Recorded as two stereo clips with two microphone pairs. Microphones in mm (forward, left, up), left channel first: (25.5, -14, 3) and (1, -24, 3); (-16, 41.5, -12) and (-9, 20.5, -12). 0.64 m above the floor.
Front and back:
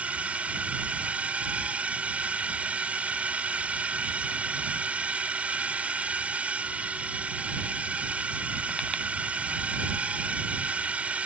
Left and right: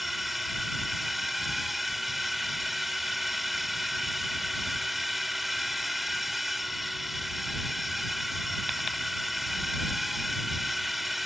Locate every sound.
0.0 s a drone: 150° right